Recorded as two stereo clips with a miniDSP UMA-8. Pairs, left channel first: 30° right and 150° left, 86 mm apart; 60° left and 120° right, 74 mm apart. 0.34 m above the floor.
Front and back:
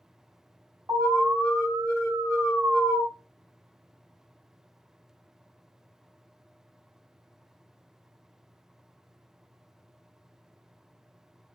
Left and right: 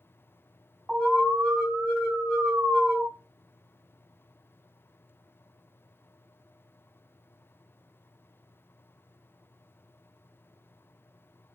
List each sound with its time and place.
0.9 s an alarm: 155° left, 2 m